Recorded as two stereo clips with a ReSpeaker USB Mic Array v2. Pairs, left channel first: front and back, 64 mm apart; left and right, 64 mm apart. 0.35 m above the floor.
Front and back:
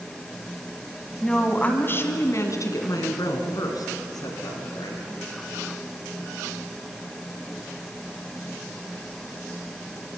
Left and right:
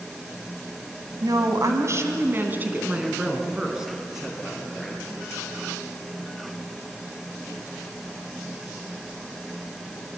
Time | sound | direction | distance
1.2 | a woman speaking | 80° right | 2 m